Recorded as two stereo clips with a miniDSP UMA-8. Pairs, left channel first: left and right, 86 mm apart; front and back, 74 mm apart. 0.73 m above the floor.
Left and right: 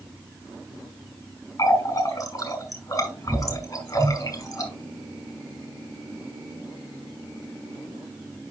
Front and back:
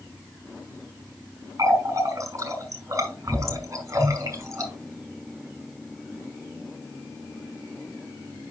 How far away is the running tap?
About 2.5 m.